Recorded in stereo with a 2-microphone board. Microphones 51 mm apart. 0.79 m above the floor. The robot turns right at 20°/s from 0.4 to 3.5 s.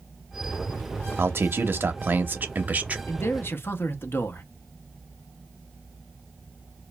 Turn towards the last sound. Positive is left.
turn(degrees=50)  # may be behind; listen again after turning